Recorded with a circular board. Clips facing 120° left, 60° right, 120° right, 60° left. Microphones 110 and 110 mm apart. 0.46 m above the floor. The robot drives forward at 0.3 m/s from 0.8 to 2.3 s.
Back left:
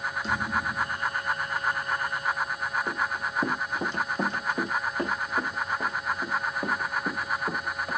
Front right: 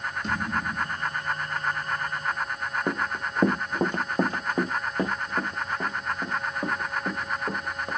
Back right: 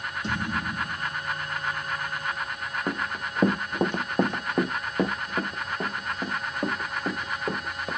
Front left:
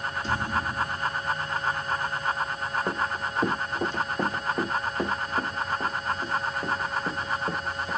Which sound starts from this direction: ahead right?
Running footsteps, at 2.9 s.